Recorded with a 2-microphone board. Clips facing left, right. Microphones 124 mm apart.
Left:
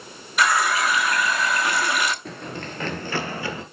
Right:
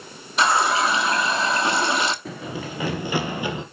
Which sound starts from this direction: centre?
Running footsteps, at 2.2 s.